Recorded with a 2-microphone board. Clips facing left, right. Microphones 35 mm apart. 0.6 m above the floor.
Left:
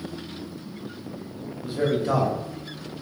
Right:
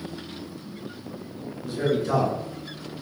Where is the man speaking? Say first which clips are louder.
Left 1 dB; 30° left (ahead or behind), 0.8 m.